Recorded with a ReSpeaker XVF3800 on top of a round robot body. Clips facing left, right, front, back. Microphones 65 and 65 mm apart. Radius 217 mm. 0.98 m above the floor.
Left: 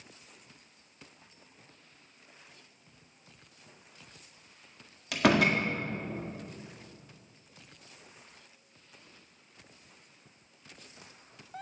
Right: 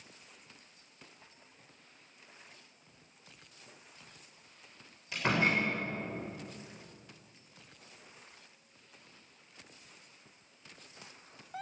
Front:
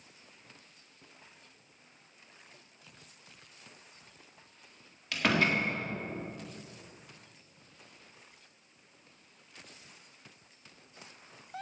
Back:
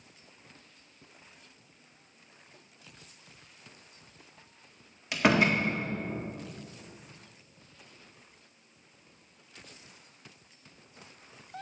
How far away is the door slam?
About 1.8 m.